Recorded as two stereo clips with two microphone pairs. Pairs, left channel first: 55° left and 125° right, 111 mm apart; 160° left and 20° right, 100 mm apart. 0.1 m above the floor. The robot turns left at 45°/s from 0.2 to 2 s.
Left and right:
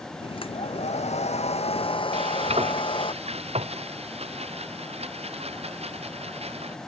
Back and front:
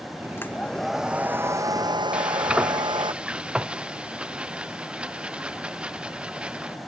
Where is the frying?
100° right.